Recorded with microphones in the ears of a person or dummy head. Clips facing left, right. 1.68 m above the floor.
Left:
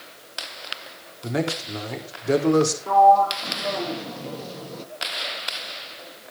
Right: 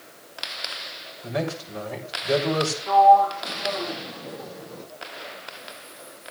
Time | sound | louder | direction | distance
1.2 | a man speaking | left 2 dB | 55° left (ahead or behind) | 4 m
2.9 | a sliding door | right 2 dB | 45° left (ahead or behind) | 1.2 m